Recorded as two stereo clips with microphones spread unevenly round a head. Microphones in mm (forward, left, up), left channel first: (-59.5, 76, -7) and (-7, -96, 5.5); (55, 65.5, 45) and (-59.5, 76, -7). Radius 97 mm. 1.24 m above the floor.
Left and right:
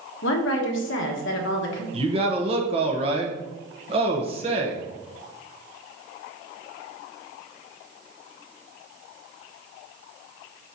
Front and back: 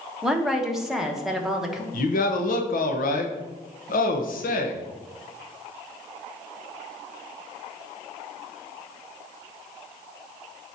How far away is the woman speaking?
About 1.3 m.